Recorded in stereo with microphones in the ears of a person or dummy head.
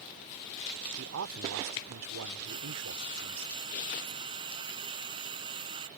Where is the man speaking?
85° right.